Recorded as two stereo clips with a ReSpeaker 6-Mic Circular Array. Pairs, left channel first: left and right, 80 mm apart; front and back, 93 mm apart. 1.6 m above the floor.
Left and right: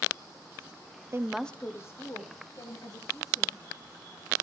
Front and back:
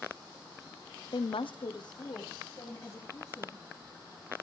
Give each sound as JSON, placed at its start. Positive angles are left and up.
{"t": 1.1, "sound": "a woman speaking", "azimuth_deg": -35, "distance_m": 0.5}